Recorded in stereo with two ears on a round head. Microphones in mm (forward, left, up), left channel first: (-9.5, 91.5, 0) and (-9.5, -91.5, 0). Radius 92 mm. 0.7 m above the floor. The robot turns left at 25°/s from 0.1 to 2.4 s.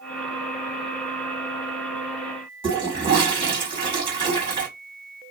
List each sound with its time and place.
2.6 s a toilet flushing: 25° right (ahead or behind), 1.8 m